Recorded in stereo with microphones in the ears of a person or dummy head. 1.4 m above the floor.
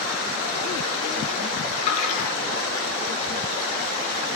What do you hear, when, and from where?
1.9 s a splash: 40° left (ahead or behind), 10 m